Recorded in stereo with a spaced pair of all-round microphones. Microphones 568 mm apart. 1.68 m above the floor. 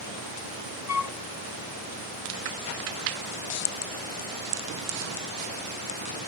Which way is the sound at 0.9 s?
80° left.